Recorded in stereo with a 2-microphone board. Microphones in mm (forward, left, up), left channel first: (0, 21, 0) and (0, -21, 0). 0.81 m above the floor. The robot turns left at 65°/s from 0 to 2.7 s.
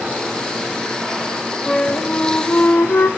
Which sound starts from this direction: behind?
A flute, at 1.7 s.